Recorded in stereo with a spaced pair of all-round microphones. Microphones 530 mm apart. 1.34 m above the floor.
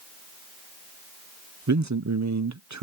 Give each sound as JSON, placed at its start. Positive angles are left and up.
{"t": 1.7, "sound": "a man speaking", "side_deg": -30}